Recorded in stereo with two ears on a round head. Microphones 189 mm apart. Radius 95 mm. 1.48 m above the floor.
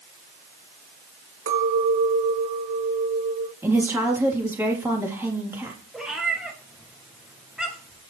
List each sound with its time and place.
1.5 s a clink: 70° right (ahead or behind), 4 m
3.6 s a woman speaking: 10° right (ahead or behind), 3 m
5.9 s a cat meowing: 5° right (ahead or behind), 3 m